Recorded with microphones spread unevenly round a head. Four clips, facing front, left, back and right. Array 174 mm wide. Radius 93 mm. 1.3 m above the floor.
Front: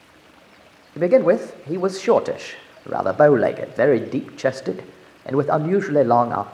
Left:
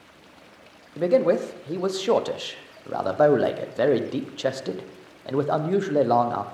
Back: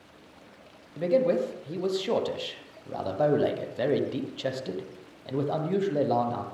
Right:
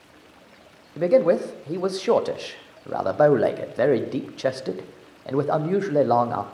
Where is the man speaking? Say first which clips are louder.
Right 2 dB, front 8 dB; straight ahead, 0.8 m.